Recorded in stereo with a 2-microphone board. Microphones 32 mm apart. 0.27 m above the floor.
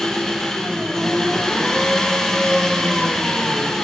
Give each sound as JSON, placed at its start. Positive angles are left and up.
{"t": 0.0, "sound": "an engine running", "side_deg": 15, "distance_m": 3.5}